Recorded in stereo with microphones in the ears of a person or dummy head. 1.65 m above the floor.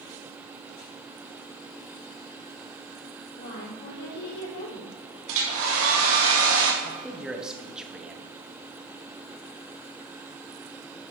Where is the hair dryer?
65° right (ahead or behind), 2 m.